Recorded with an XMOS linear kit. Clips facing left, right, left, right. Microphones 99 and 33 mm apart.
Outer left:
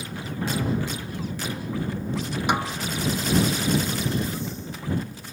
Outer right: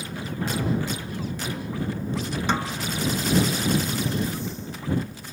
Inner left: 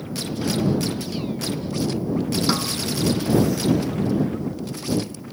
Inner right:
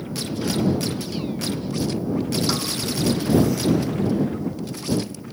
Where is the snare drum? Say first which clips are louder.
Outer left 2 dB, inner left 2 dB; 15° left (ahead or behind).